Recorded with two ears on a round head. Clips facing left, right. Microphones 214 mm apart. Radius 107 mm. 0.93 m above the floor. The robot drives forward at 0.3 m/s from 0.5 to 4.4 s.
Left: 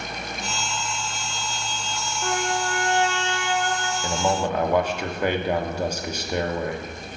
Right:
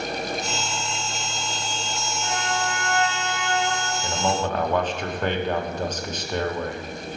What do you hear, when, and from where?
2.2 s a trumpet: 35° left (ahead or behind), 0.8 m; by 3.9 s 25° left (ahead or behind), 1.2 m
4.0 s a man speaking: 10° left (ahead or behind), 0.6 m